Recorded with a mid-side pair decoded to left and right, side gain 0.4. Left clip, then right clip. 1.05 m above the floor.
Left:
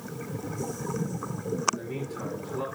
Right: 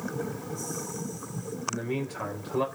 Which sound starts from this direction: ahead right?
A man speaking, at 1.7 s.